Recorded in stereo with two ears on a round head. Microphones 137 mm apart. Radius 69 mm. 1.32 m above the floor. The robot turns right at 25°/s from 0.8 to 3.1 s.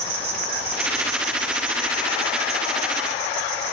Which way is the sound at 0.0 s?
140° right.